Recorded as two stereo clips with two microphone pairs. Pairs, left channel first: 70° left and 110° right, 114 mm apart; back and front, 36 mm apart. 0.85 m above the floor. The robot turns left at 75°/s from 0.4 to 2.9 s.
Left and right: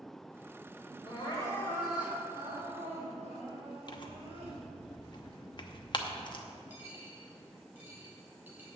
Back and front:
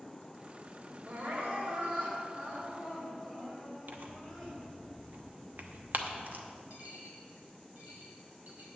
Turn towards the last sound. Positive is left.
turn(degrees=-35)